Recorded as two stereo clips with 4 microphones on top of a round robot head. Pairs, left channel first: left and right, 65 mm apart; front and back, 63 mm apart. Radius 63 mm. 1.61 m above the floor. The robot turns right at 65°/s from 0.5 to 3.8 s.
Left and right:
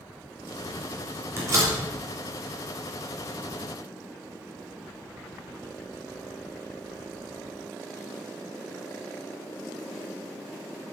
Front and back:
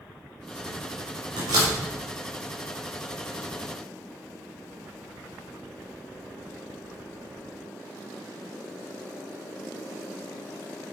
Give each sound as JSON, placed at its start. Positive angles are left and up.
{"t": 1.4, "sound": "a door slam", "azimuth_deg": -145, "distance_m": 3.0}